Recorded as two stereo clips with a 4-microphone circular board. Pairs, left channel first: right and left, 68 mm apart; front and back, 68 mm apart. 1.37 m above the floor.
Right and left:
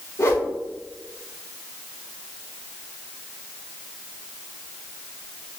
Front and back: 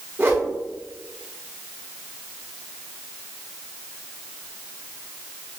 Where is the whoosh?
125° right, 1.6 m.